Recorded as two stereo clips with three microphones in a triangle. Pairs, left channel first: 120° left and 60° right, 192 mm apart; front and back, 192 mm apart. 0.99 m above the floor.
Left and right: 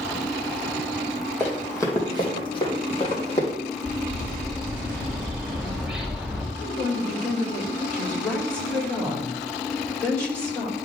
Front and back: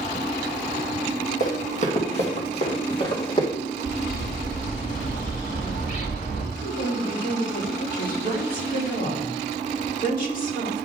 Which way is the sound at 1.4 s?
40° left.